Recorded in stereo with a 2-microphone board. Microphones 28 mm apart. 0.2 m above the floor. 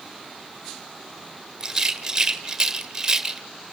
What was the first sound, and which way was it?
A rattle, 20° right (ahead or behind).